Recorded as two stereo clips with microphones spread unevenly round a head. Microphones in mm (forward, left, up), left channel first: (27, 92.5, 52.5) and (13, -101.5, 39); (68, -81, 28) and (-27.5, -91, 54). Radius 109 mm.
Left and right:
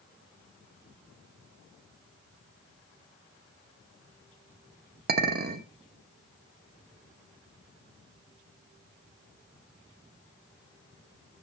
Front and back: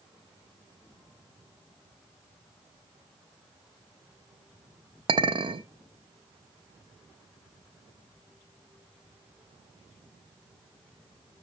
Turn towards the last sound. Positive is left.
turn(degrees=-140)